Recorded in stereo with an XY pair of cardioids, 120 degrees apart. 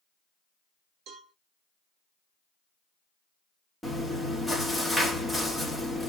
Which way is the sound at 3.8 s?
Straight ahead.